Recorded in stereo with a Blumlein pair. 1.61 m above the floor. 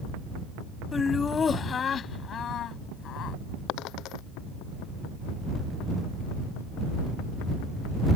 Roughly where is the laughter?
Ahead.